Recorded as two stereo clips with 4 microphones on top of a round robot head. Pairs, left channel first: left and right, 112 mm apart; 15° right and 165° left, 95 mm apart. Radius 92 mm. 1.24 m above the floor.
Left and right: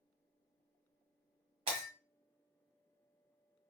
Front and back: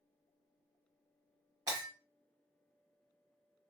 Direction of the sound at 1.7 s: 130° right.